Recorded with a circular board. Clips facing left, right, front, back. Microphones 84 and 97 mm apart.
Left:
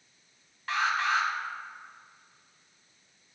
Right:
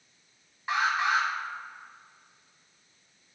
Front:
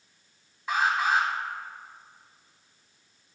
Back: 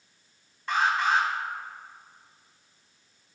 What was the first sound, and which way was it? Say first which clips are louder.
An alarm: right 1 dB, even; 70° right.